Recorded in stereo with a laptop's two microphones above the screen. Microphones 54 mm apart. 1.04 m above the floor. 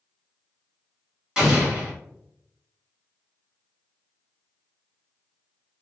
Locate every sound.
1.4 s an explosion: 20° right (ahead or behind), 1.6 m